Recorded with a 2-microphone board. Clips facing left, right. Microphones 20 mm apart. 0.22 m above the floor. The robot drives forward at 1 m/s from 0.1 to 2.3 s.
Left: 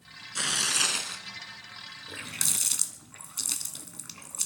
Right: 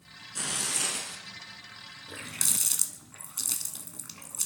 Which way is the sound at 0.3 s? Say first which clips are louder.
Left 5 dB; 35° left (ahead or behind).